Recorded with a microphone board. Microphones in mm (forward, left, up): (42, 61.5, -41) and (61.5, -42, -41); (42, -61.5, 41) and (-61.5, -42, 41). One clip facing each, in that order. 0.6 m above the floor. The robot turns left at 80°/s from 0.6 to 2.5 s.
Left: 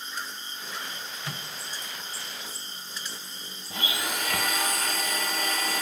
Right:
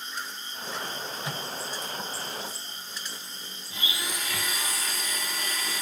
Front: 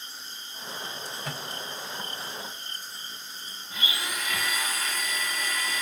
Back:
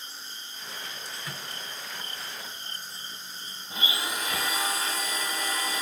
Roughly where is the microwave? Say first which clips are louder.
Right 4 dB, front 4 dB; ahead.